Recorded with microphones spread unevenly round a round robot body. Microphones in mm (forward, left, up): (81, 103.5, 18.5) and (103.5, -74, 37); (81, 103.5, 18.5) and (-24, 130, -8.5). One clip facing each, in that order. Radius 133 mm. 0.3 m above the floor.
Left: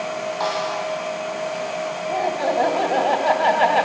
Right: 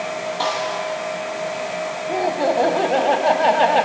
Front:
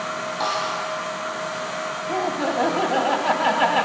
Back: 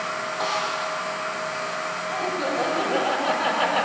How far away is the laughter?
About 1.2 m.